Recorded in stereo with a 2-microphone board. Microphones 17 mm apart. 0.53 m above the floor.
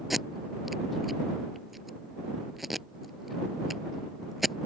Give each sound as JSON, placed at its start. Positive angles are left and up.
{"t": 0.1, "sound": "tape being pulled", "side_deg": -10}